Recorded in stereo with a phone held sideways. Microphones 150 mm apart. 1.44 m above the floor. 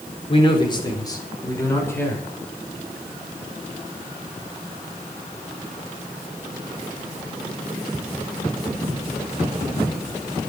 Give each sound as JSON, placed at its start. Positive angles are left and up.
{"t": 0.3, "sound": "a man speaking", "side_deg": 35, "distance_m": 5.0}